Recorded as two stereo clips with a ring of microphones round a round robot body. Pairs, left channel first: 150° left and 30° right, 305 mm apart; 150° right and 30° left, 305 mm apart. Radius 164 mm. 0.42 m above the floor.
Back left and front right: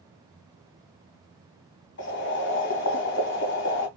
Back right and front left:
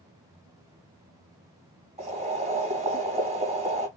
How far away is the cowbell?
I don't hear a cowbell.